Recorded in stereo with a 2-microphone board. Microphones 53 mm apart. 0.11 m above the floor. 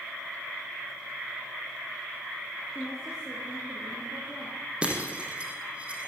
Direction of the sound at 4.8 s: 20° right (ahead or behind).